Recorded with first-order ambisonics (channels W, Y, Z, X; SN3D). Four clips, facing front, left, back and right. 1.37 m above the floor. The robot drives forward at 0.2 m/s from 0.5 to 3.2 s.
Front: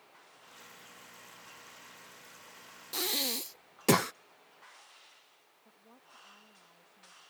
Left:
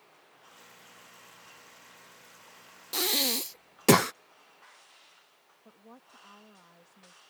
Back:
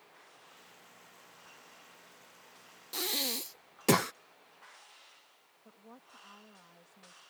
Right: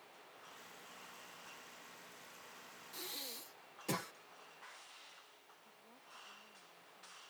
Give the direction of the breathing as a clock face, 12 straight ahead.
9 o'clock.